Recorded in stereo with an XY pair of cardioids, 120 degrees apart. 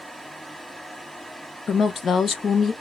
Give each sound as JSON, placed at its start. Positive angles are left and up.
{"t": 0.0, "sound": "a fan", "azimuth_deg": 0, "distance_m": 1.3}
{"t": 1.7, "sound": "a woman speaking", "azimuth_deg": 40, "distance_m": 0.5}